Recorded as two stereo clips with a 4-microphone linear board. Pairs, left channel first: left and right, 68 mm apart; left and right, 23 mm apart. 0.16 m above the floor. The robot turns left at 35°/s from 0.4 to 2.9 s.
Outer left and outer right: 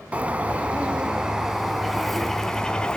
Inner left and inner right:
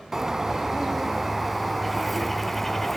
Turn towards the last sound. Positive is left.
turn(degrees=15)  # may be behind; listen again after turning